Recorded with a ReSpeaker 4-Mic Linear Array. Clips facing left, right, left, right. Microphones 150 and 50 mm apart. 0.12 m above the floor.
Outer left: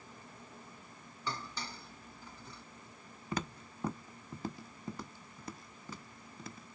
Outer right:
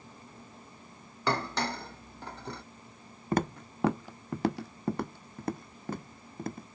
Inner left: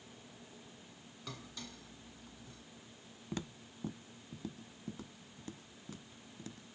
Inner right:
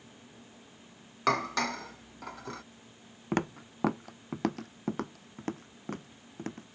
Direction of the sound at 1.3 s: 70° right (ahead or behind).